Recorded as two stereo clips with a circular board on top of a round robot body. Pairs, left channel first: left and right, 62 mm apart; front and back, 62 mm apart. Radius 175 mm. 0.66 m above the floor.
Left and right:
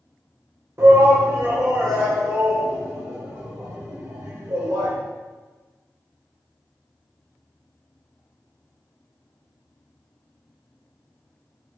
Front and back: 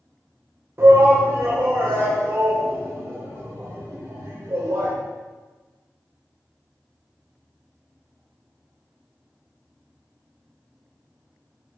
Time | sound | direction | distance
0.8 | a shout | 130° right | 3.5 m